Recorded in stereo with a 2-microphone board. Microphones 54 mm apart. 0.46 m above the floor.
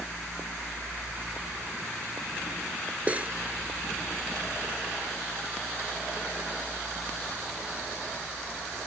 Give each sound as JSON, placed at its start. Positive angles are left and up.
{"t": 3.1, "sound": "cutlery clinking", "side_deg": -25}